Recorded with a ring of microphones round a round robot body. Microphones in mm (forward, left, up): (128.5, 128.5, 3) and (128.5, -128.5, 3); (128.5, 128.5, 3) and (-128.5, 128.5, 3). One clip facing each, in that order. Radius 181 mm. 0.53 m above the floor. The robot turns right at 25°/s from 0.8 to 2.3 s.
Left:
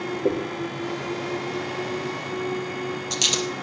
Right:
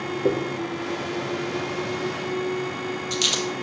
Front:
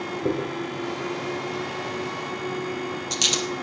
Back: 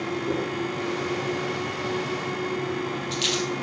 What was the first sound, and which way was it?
A dropped coin, 5° right.